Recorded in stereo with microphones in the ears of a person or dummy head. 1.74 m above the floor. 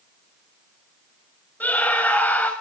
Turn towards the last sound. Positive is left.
turn(degrees=10)  # may be behind; listen again after turning